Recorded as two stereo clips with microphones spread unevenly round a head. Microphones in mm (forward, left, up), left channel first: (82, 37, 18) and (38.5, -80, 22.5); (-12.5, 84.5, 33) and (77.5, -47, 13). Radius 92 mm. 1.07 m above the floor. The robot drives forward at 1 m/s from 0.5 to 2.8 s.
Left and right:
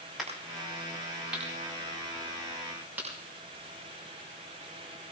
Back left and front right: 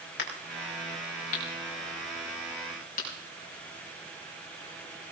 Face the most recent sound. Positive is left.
turn(degrees=170)